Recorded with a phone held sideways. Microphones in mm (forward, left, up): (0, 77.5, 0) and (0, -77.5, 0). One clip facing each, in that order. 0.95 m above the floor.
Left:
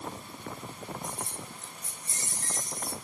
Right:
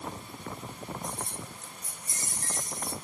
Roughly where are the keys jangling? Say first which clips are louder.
Right 1 dB; centre.